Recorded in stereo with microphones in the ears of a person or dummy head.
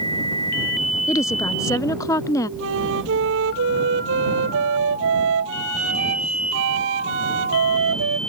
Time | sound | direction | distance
1.1 | a woman speaking | 15° left (ahead or behind) | ?
2.6 | a flute | 70° right (ahead or behind) | ?